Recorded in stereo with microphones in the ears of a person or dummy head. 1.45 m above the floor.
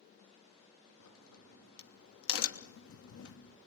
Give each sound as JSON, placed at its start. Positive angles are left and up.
{"t": 1.0, "sound": "a crack", "side_deg": 80, "distance_m": 2.5}